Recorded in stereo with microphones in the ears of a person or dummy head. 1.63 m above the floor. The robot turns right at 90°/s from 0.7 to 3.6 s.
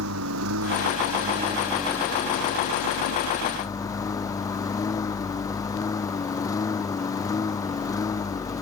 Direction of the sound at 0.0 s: 100° right.